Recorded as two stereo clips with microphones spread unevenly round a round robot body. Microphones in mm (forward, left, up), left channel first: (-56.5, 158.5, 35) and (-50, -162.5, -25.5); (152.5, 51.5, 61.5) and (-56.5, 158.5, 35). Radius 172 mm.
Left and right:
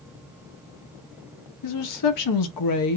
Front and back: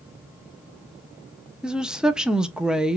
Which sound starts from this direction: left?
A woman speaking, at 1.6 s.